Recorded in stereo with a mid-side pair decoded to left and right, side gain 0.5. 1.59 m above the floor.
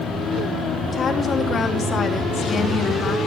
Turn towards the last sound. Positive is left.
turn(degrees=40)